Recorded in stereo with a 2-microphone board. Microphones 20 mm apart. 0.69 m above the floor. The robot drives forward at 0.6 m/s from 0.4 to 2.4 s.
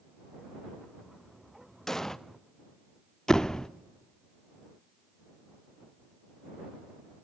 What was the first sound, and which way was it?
An explosion, 20° left (ahead or behind).